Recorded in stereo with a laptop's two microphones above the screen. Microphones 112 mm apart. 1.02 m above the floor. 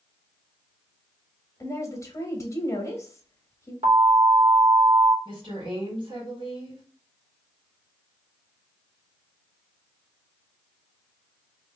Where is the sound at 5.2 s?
50° right (ahead or behind), 1.8 m.